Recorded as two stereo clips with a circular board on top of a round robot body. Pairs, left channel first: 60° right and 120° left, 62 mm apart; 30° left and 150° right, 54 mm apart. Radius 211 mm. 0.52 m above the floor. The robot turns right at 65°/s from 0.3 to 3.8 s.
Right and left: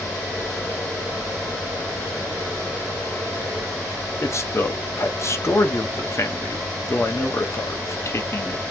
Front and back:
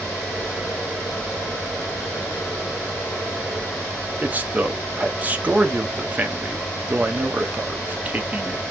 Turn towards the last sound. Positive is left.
turn(degrees=-95)